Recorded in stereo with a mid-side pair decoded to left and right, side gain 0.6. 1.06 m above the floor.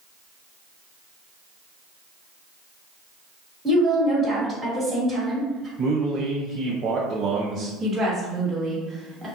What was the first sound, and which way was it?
A woman speaking, 10° right.